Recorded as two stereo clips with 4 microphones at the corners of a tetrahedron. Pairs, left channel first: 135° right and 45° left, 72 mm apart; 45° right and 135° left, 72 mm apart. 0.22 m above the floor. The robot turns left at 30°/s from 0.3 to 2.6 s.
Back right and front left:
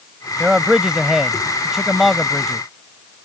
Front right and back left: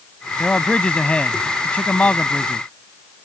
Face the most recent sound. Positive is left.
turn(degrees=-60)